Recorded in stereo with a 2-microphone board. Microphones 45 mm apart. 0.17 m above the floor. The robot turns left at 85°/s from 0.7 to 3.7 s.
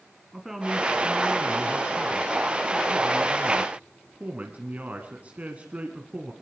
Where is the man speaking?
165° right, 1.6 m; by 6.3 s 60° right, 1.6 m.